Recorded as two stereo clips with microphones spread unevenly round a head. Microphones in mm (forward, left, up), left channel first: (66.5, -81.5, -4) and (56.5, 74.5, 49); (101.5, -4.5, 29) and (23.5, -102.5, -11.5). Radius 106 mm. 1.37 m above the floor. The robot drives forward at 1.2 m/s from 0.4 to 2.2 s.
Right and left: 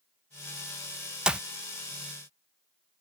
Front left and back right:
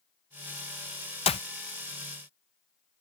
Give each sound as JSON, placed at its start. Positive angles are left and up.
{"t": 1.3, "sound": "a clap", "azimuth_deg": 10}